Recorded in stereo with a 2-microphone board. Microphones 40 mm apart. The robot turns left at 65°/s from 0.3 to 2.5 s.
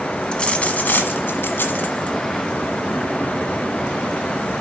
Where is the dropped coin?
155° left, 1.2 m; by 2.2 s 35° left, 1.2 m.